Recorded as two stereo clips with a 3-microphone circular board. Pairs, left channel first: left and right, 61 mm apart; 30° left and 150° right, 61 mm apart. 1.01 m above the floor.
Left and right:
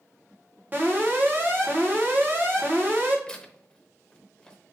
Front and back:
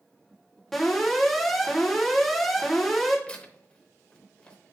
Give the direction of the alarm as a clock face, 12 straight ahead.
2 o'clock.